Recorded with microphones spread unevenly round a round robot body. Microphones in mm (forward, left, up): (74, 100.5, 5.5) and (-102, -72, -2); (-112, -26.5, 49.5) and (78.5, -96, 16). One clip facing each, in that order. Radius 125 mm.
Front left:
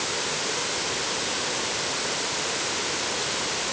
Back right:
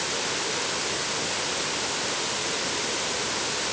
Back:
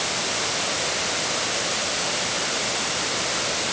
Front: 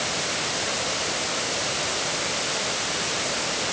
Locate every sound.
Only background noise.